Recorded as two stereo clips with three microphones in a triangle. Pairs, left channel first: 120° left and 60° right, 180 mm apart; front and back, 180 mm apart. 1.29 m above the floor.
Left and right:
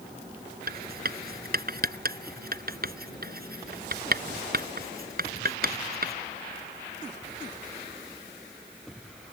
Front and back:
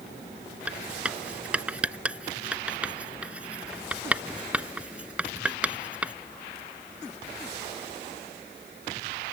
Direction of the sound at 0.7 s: 95° right.